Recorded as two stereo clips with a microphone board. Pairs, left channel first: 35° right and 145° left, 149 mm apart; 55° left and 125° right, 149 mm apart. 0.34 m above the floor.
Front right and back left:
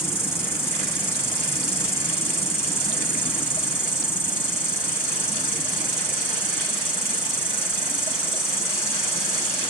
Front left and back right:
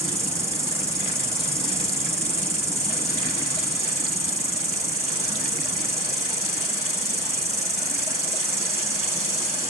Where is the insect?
85° right, 1.6 m.